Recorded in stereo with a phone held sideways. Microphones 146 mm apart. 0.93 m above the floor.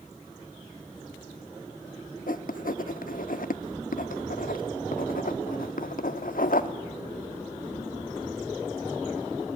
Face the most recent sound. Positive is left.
turn(degrees=70)  # may be behind; listen again after turning